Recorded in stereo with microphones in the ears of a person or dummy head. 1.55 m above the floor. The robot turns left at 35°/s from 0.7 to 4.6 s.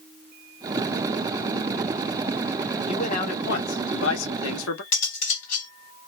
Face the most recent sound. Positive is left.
turn(degrees=50)  # may be behind; listen again after turning